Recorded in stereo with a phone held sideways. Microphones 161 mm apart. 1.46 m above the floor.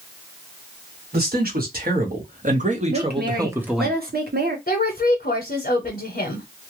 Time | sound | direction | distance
1.1 | a man speaking | 70° right (ahead or behind) | 1.4 m
2.9 | a woman speaking | 70° right (ahead or behind) | 0.9 m
4.7 | a woman speaking | 60° left (ahead or behind) | 0.7 m